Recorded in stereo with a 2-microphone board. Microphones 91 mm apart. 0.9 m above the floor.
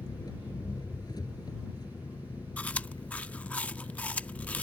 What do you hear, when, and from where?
0.0 s an engine running: 50° left (ahead or behind)
2.6 s chewing: 15° left (ahead or behind)